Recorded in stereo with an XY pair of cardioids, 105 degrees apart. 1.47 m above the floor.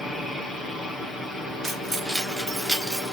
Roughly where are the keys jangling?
Ahead right.